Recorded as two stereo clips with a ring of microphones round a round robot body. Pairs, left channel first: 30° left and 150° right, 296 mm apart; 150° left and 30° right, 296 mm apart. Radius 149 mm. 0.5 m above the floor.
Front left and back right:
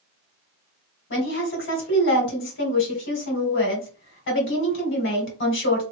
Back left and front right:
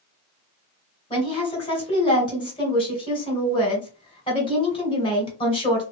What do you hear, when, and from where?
1.1 s a woman speaking: 80° left, 2.5 m